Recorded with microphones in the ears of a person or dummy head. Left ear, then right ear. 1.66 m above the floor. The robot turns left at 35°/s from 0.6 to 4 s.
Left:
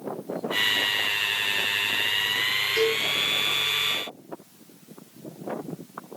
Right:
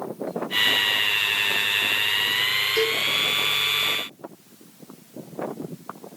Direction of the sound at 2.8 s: 15° right (ahead or behind).